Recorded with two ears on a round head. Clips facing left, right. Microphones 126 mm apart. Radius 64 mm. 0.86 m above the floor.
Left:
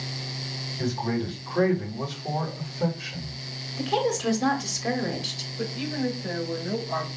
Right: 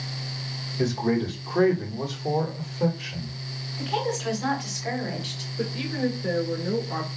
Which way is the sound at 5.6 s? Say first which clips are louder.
Right 1 dB; 50° right (ahead or behind).